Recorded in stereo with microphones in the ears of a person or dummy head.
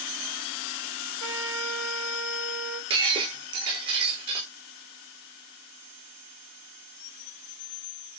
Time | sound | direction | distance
1.2 | a trumpet | 80° right | 6 m
2.9 | breaking glass | 30° right (ahead or behind) | 8 m